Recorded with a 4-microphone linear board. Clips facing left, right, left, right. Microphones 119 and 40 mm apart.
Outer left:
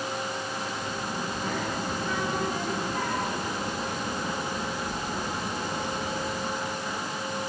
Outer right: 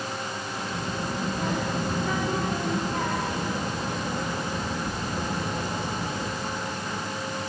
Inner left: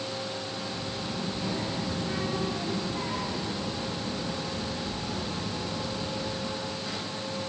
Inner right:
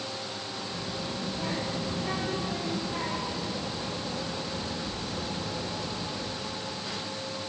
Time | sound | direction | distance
0.7 | a child speaking | 70° right (ahead or behind) | 3.5 m